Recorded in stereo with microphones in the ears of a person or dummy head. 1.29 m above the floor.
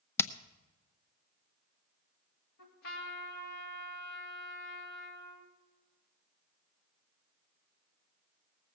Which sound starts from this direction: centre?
Hammering, at 0.2 s.